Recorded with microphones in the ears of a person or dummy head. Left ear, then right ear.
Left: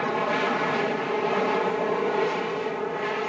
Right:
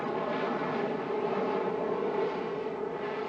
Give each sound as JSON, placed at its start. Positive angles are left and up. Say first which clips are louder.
{"t": 0.0, "sound": "an aircraft", "louder": "left 7 dB", "side_deg": 50}